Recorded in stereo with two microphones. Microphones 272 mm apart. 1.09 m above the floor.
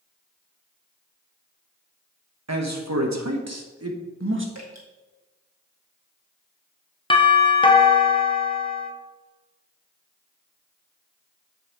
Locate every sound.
2.5 s a man speaking: 70° right (ahead or behind), 1.1 m; by 4.5 s 45° right (ahead or behind), 1.3 m
4.5 s dripping: 70° right (ahead or behind), 2 m
7.1 s a doorbell: 20° left (ahead or behind), 0.9 m